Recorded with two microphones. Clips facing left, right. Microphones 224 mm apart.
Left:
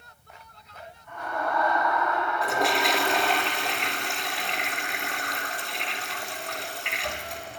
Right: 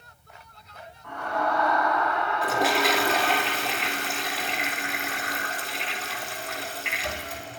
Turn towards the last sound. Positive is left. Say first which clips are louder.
# right 2 dB
turn(degrees=0)  # may be behind; listen again after turning